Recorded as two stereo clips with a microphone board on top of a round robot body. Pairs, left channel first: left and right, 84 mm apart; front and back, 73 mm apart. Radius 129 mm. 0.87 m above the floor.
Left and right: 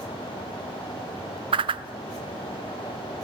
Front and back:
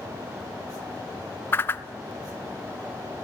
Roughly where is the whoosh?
Ahead right.